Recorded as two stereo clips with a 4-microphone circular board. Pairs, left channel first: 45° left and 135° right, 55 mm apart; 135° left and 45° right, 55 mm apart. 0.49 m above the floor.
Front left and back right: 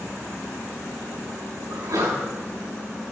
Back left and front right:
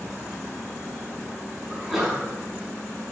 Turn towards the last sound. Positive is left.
turn(degrees=-135)